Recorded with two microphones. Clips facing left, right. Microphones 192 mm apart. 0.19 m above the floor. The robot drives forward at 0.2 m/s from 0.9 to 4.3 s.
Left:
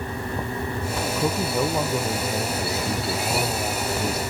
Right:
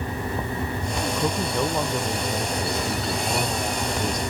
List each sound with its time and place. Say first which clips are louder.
1.2 s a man speaking: left 2 dB; 5° left (ahead or behind)